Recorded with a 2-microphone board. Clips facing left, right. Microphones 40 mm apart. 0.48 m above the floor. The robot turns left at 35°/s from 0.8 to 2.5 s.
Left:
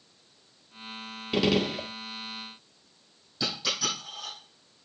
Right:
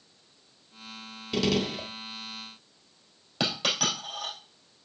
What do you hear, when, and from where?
1.3 s a gunshot: 15° left (ahead or behind), 0.9 m; by 1.9 s 10° left (ahead or behind), 0.9 m
3.4 s a dropped coin: 85° right, 4 m